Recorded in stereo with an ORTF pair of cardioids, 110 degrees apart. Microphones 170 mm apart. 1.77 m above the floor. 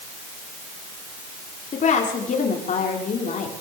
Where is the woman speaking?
45° left, 6.5 m.